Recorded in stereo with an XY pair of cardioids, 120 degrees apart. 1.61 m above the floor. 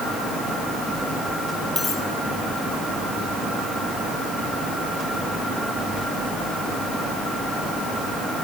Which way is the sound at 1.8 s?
20° left.